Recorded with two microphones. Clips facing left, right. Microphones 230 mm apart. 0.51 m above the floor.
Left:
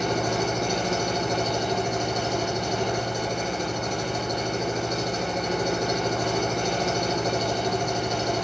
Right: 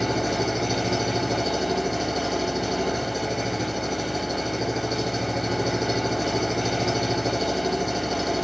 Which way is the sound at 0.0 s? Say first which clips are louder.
Right 1 dB; 10° right (ahead or behind).